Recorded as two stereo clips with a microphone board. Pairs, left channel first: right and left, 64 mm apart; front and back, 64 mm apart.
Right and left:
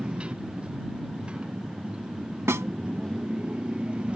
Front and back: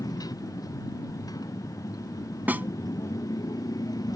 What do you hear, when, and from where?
0.0 s a motorcycle: 15° left
2.5 s a snare drum: 125° left